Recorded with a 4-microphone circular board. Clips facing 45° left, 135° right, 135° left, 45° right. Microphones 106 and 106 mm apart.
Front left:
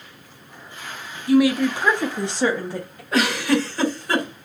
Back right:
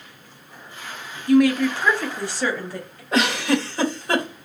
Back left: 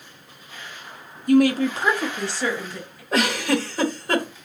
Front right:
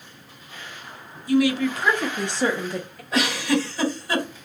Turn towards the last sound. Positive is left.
turn(degrees=165)